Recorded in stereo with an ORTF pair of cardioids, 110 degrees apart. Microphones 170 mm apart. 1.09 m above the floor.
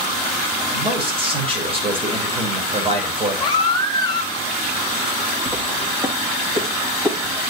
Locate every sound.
0.7 s a man speaking: 35° right, 4.5 m
3.4 s a baby crying: 30° left, 2 m
5.5 s footsteps: 10° right, 4.5 m